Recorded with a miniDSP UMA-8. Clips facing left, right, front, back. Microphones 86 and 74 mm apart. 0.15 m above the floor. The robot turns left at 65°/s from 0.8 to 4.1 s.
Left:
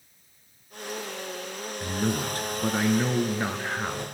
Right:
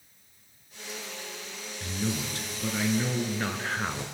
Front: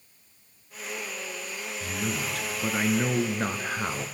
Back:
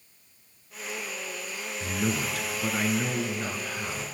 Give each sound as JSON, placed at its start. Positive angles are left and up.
{"t": 1.8, "sound": "a man speaking", "azimuth_deg": 130, "distance_m": 1.5}